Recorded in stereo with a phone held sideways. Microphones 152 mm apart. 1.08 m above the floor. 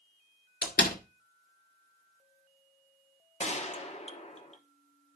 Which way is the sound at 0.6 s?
85° left.